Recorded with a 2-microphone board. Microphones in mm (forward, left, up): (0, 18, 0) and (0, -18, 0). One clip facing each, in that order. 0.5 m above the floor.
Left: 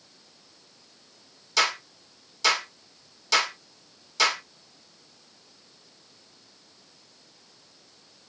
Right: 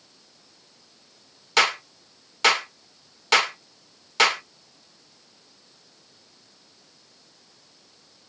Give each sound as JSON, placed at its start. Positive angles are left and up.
{"t": 1.6, "sound": "a clap", "side_deg": -55, "distance_m": 1.3}